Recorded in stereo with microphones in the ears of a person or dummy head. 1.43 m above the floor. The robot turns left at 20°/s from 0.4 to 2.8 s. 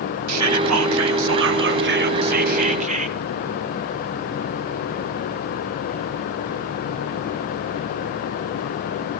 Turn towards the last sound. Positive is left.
turn(degrees=-145)